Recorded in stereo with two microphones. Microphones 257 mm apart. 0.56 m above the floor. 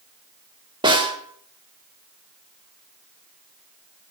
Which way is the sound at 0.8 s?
20° right (ahead or behind).